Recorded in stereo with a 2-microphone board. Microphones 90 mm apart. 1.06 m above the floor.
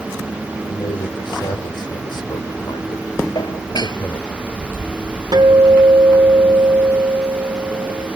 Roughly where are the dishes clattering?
Left.